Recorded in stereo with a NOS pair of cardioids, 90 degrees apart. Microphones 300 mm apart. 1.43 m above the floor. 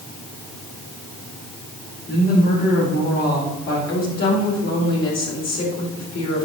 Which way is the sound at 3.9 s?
60° left.